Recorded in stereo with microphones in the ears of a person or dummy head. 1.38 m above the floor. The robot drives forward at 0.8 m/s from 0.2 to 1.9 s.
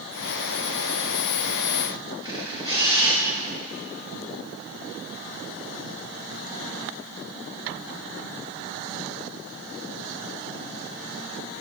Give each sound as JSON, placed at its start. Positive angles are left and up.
{"t": 2.2, "sound": "a camera shutter", "side_deg": -20, "distance_m": 2.0}